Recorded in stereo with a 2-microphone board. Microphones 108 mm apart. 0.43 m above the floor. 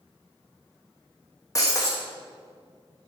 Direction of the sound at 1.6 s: 30° left (ahead or behind).